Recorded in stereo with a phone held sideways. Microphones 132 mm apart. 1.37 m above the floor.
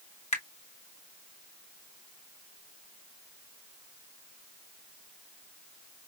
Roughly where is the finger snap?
Left.